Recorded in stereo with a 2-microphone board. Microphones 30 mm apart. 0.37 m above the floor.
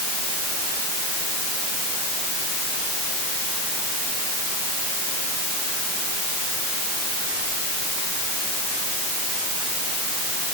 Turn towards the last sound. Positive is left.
No sound to turn to.